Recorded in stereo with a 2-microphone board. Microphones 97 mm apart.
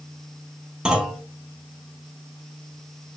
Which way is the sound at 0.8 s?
10° right (ahead or behind).